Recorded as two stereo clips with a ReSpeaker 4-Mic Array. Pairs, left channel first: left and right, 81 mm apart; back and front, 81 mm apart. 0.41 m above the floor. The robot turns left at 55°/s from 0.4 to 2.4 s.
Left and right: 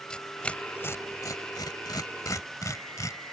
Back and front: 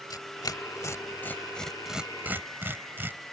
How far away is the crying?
I don't hear crying.